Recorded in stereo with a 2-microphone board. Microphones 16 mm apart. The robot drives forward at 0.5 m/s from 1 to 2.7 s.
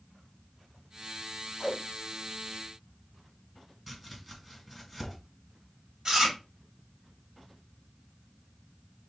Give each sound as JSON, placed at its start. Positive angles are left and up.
{"t": 1.6, "sound": "a whoosh", "side_deg": 45, "distance_m": 1.7}
{"t": 3.9, "sound": "chopping", "side_deg": -10, "distance_m": 2.0}
{"t": 6.0, "sound": "chewing", "side_deg": -35, "distance_m": 2.5}